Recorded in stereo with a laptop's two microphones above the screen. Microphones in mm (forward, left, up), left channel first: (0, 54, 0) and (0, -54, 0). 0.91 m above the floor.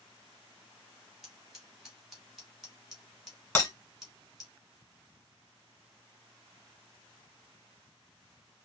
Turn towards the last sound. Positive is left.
turn(degrees=25)  # may be behind; listen again after turning